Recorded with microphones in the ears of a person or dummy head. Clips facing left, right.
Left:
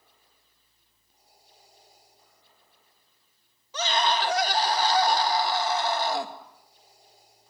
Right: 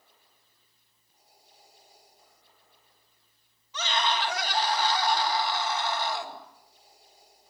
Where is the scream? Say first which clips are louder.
Left 3 dB; 40° left (ahead or behind), 2.5 m.